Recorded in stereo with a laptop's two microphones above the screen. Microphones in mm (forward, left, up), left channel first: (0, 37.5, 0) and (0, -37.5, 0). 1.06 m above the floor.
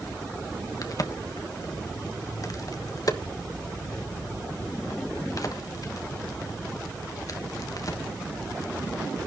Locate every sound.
0.8 s a crack: 50° left (ahead or behind), 1.3 m